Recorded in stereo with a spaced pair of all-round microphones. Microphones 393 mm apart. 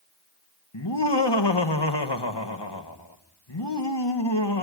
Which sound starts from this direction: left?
Laughter, at 0.7 s.